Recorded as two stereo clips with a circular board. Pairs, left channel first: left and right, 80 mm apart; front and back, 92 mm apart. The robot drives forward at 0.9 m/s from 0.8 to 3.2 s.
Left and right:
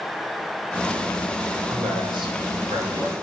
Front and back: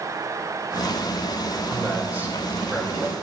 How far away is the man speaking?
About 3.5 m.